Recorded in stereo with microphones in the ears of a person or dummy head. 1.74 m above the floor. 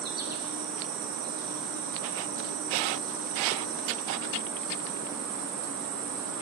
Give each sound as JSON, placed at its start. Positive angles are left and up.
{"t": 0.0, "sound": "an insect", "side_deg": -50, "distance_m": 1.1}